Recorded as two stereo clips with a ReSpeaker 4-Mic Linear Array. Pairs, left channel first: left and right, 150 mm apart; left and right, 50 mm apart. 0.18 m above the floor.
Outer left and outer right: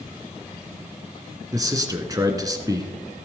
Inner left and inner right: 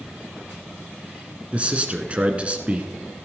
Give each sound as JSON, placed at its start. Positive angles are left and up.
{"t": 1.5, "sound": "a man speaking", "side_deg": -25, "distance_m": 1.6}